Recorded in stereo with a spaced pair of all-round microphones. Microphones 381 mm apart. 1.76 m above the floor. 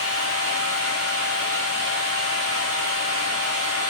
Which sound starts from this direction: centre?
A machine running, at 0.0 s.